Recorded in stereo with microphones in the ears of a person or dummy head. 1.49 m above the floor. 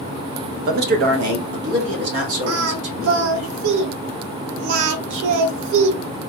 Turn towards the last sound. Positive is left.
turn(degrees=-80)